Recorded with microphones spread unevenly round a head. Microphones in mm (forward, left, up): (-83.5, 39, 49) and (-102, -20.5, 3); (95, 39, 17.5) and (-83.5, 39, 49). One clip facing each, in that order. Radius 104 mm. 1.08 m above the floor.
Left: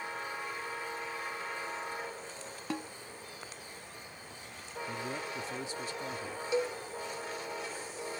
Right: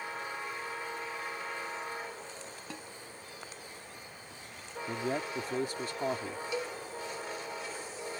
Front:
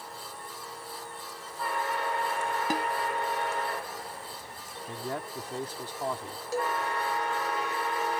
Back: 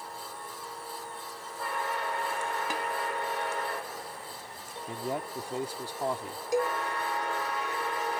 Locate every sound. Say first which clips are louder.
2.7 s a snare drum: left 10 dB, front 4 dB; 50° left
4.9 s a man speaking: right 5 dB, back 2 dB; 100° right
6.5 s a cowbell: left 6 dB, back 3 dB; 110° left